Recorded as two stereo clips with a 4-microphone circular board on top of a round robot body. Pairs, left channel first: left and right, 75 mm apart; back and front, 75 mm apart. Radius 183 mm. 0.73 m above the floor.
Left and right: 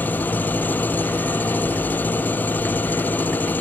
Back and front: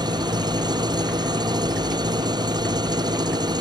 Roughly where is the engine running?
Ahead left.